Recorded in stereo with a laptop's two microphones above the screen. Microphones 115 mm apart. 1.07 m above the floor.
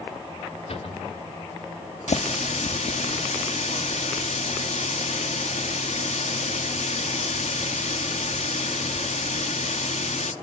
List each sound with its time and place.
0.7 s a cupboard door: 60° left (ahead or behind), 4 m
2.1 s a running tap: 90° left, 1.4 m